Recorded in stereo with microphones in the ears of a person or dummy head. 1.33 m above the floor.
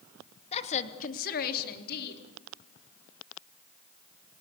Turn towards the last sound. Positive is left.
turn(degrees=60)  # may be behind; listen again after turning